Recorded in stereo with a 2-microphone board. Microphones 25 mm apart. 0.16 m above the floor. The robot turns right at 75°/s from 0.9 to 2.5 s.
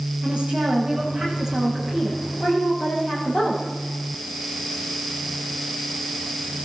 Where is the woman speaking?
65° right, 9 m; by 3.6 s 55° left, 9 m.